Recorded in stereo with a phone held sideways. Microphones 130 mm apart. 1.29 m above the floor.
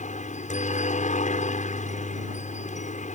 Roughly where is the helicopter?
Left.